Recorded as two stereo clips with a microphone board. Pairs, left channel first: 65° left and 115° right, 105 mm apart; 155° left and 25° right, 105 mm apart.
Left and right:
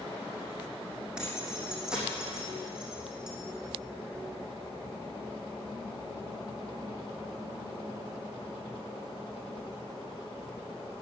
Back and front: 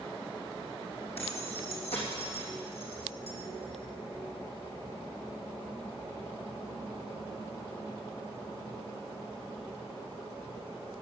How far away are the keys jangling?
About 3.5 m.